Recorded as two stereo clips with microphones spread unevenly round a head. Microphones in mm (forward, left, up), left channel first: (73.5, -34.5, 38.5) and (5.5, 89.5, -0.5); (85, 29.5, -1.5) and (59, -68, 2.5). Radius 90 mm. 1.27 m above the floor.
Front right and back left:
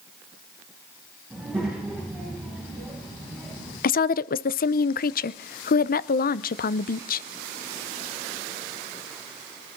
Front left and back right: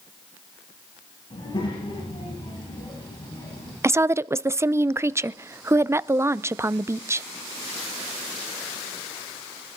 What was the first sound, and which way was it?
A child speaking, 35° left.